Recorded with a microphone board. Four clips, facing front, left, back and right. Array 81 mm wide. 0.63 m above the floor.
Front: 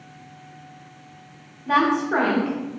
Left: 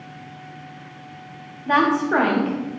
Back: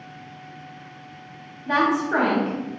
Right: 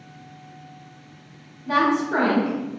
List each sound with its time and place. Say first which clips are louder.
1.7 s a woman speaking: left 2 dB, front 1 dB; 90° left, 0.6 m